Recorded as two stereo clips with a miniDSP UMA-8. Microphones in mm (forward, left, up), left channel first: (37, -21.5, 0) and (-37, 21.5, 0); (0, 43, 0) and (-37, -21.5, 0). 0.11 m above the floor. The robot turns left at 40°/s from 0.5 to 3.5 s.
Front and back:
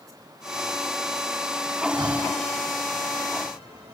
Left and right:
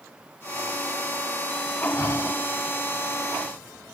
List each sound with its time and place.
1.9 s breathing: 110° left; by 2.4 s 95° left